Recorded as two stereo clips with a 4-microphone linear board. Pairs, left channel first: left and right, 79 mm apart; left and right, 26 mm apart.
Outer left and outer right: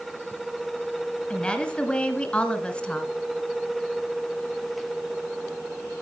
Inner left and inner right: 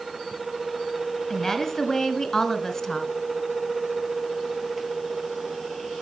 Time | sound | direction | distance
1.3 | a woman speaking | 15° left (ahead or behind) | 1.3 m